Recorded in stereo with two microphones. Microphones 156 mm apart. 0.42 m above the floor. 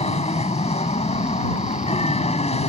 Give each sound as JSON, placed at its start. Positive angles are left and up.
{"t": 0.0, "sound": "an aircraft", "side_deg": 45}